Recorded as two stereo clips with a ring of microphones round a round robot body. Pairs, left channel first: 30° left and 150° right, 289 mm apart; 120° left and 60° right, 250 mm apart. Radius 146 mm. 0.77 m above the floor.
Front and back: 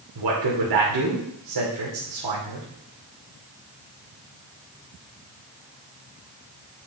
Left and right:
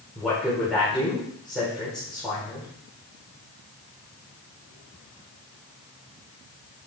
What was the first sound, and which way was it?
A man speaking, 150° right.